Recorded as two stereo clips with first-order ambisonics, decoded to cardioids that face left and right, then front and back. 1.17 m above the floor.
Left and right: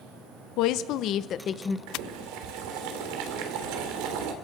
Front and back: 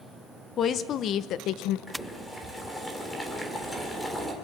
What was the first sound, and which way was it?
A woman speaking, 60° left.